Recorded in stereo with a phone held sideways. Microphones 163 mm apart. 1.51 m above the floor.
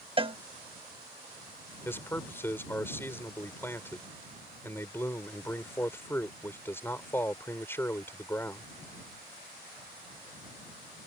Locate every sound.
0.2 s a cowbell: 35° right (ahead or behind)
1.9 s a man speaking: 15° left (ahead or behind)